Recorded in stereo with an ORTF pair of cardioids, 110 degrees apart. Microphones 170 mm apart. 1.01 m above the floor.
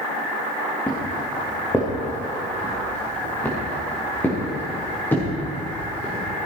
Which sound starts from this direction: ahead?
Footsteps, at 0.9 s.